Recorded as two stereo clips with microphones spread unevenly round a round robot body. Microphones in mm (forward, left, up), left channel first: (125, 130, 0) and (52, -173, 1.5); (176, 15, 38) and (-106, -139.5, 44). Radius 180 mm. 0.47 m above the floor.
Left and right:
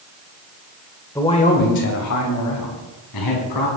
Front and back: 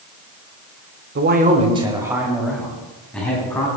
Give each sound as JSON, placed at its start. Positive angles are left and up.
{"t": 1.1, "sound": "a man speaking", "azimuth_deg": 160, "distance_m": 1.3}